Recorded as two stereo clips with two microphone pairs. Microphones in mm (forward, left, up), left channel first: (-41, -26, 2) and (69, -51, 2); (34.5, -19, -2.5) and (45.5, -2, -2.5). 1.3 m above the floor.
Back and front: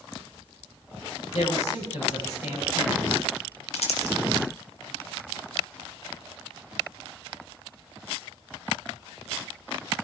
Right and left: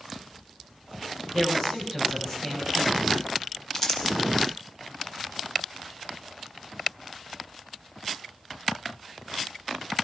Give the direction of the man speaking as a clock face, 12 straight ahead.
6 o'clock.